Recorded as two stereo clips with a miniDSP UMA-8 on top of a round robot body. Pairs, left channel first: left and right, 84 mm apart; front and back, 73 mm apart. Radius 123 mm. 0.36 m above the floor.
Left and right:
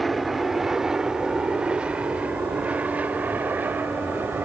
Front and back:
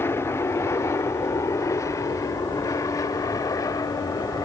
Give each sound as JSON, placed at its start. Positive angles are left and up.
{"t": 0.0, "sound": "an aircraft", "azimuth_deg": 0}